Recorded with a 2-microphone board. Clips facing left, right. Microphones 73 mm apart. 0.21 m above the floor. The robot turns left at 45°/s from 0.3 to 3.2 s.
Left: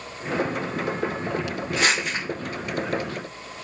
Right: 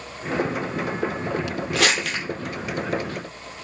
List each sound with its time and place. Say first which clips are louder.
1.8 s crumpling: right 1 dB; 85° right, 0.9 m; by 2.2 s 75° right (ahead or behind), 0.9 m